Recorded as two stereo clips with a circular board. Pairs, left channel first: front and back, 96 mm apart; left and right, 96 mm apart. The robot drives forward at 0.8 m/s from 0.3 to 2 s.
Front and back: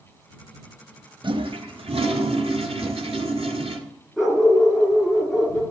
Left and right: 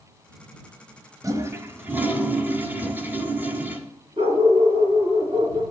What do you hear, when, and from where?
1.2 s a toilet flushing: 145° right, 0.6 m; by 3.8 s 160° right, 1.2 m
2.8 s a whoosh: 55° right, 3 m
4.2 s a dog barking: 95° right, 2 m